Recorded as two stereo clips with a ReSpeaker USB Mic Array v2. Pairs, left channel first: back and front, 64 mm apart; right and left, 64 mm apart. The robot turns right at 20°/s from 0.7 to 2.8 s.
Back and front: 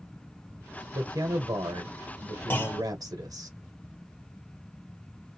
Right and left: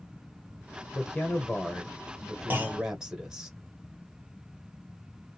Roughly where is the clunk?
Behind left.